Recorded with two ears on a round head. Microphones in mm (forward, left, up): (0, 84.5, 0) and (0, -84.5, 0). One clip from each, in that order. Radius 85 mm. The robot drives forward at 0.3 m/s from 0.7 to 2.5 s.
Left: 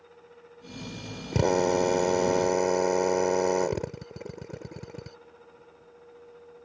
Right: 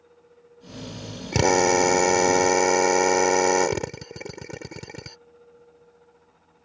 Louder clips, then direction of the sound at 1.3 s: Right 5 dB; 60° right (ahead or behind).